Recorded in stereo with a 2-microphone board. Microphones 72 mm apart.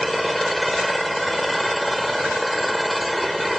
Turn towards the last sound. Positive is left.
turn(degrees=0)  # may be behind; listen again after turning